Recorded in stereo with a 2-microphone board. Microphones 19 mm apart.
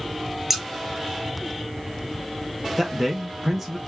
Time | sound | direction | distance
0.5 | scissors | 15° right (ahead or behind) | 0.8 m
2.8 | a man speaking | 5° right (ahead or behind) | 0.6 m